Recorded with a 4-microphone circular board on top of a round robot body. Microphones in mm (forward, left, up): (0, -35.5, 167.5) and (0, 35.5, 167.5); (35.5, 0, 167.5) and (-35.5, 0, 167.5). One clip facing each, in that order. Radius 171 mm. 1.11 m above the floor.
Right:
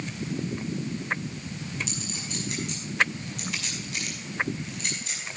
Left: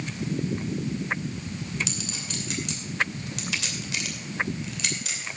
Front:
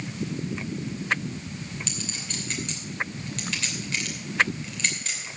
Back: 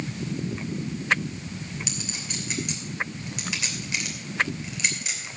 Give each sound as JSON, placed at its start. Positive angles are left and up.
{"t": 1.9, "sound": "a clink", "azimuth_deg": 100, "distance_m": 2.5}